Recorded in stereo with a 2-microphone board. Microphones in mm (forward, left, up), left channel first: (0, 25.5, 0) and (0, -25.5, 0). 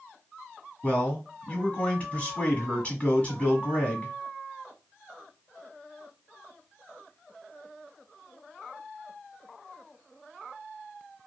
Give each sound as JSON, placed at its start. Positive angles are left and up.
{"t": 0.8, "sound": "a man speaking", "side_deg": 25, "distance_m": 1.5}